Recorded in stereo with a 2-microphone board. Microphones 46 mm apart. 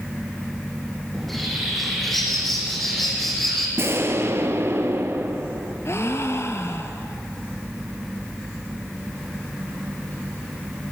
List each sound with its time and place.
1.1 s a bird: 5° left (ahead or behind), 4.5 m
3.8 s an explosion: 65° right (ahead or behind), 2 m
5.8 s a gasp: 65° left (ahead or behind), 1.6 m